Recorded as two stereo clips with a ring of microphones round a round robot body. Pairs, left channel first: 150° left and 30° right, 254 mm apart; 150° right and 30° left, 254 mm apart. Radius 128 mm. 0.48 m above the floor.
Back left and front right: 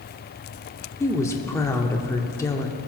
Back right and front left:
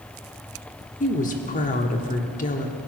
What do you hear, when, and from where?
1.0 s a woman speaking: 140° right, 1.2 m